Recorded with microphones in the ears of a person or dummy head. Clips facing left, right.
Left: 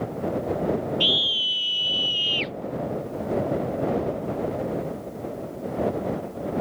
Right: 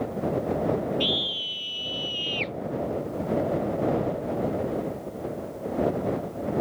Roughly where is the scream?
Centre.